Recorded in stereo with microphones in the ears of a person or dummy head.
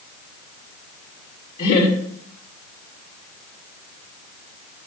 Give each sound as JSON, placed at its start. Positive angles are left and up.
{"t": 1.6, "sound": "laughter", "side_deg": 35, "distance_m": 2.5}